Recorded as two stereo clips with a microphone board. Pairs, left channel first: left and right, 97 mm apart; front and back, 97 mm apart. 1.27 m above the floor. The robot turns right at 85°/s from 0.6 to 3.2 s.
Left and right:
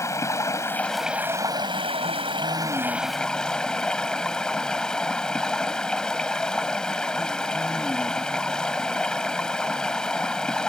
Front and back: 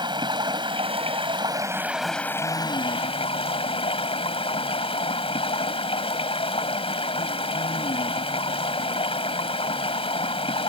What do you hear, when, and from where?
0.0 s running water: 145° left; by 10.7 s 5° left